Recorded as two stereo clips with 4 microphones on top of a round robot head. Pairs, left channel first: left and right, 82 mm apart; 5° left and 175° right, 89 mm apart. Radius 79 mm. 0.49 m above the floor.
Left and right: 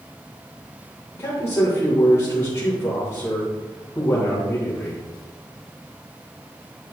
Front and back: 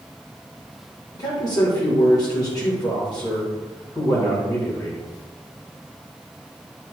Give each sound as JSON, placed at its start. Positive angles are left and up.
{"t": 1.1, "sound": "a man speaking", "azimuth_deg": 40, "distance_m": 2.5}